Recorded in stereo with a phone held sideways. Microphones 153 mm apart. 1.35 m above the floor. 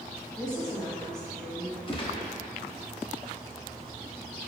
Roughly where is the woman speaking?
Centre.